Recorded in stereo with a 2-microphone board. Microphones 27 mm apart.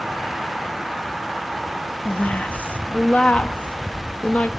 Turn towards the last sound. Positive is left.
turn(degrees=60)  # may be behind; listen again after turning